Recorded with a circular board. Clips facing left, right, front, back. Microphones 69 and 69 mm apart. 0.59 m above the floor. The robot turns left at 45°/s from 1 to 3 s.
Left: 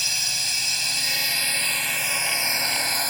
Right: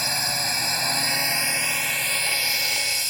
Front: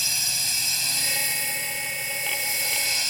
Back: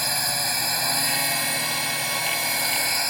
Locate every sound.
0.0 s a drone: 140° right; by 3.1 s 130° left